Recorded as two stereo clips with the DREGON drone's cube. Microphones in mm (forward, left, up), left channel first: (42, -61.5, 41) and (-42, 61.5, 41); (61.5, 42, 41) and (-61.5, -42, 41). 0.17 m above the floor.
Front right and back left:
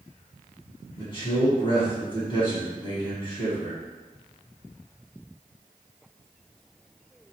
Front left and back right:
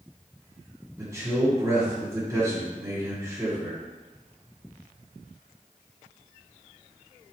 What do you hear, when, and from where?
1.0 s a man speaking: 90° right, 1.8 m